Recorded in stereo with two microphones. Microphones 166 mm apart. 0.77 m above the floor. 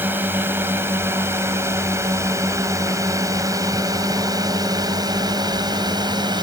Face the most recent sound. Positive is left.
turn(degrees=-25)  # may be behind; listen again after turning